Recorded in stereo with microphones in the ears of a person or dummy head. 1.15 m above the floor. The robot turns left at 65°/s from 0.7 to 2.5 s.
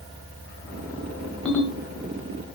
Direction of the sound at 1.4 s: Centre (ahead or behind).